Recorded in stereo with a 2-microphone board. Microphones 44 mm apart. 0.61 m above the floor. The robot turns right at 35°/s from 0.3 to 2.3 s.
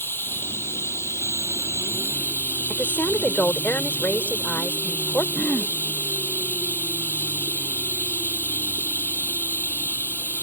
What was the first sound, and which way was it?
Running water, 60° left.